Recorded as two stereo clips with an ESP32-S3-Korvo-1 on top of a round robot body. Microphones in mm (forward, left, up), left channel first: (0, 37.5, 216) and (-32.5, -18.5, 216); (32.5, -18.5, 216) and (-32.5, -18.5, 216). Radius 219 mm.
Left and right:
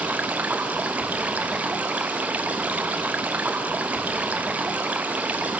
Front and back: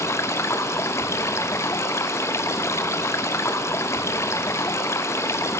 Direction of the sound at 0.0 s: 55° right.